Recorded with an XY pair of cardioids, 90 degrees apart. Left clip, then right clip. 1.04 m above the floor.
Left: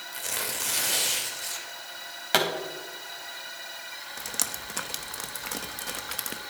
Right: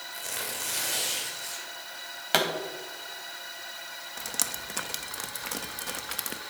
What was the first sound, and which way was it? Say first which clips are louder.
Tearing paper: left 3 dB; 35° left.